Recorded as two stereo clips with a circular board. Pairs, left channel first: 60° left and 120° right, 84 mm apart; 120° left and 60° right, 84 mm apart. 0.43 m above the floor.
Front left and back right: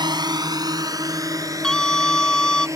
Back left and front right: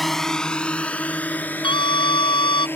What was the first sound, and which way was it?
A drone, 155° right.